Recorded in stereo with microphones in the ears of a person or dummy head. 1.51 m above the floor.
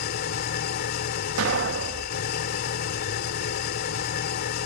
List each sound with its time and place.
0.0 s an engine running: 55° left (ahead or behind)
1.4 s an explosion: 80° right